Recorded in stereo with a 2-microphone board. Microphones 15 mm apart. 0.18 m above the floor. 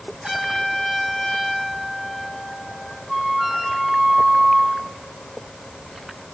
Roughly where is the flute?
Centre.